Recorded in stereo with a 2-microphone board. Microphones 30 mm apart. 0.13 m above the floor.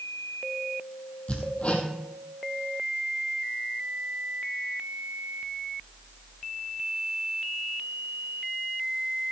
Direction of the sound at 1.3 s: 40° left (ahead or behind).